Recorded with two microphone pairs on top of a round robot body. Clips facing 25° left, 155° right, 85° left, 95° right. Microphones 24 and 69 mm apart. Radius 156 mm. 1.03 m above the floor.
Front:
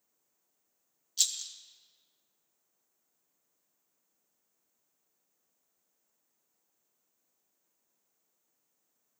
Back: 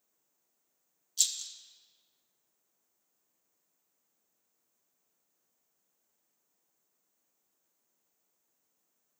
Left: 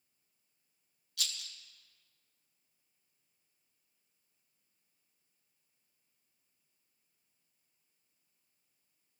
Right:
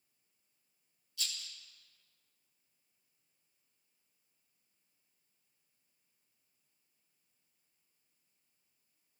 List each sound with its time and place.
1.2 s a rattle: 90° left, 1.6 m